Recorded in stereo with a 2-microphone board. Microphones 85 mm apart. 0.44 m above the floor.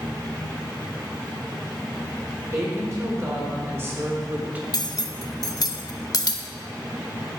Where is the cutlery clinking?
50° left (ahead or behind), 0.7 m.